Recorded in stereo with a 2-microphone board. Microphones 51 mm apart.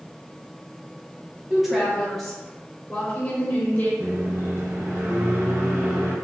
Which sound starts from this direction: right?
A microwave, at 4.0 s.